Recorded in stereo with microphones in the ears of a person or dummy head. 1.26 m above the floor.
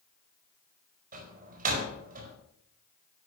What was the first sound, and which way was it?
A door slam, 40° right (ahead or behind).